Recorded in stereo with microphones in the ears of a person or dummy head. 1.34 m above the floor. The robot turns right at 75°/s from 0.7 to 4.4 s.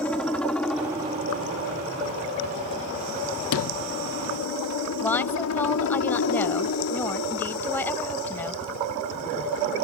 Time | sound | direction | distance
0.0 | a helicopter | 10° left (ahead or behind) | ?
3.5 | a sliding door | 70° left | ?
5.0 | a woman speaking | 10° left (ahead or behind) | ?